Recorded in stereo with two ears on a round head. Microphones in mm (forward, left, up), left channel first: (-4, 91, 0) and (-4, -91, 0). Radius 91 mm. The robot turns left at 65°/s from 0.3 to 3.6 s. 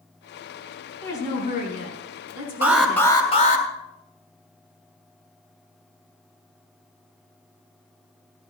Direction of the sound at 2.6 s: 170° right.